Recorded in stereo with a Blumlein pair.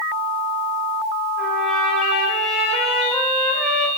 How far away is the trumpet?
About 3 m.